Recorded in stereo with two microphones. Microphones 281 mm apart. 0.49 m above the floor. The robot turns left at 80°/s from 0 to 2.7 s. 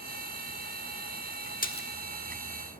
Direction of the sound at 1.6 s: 30° left (ahead or behind).